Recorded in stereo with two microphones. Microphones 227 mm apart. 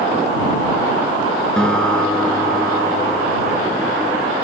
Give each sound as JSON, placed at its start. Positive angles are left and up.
{"t": 1.6, "sound": "a guitar", "side_deg": 5}